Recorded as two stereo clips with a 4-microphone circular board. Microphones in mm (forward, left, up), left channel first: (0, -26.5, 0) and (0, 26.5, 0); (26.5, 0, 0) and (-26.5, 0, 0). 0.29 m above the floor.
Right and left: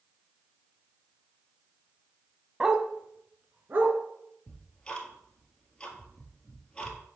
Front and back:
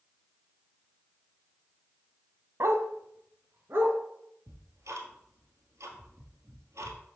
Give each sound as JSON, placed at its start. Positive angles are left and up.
{"t": 2.6, "sound": "a dog barking", "azimuth_deg": 165, "distance_m": 0.6}
{"t": 4.5, "sound": "ticking", "azimuth_deg": -165, "distance_m": 1.5}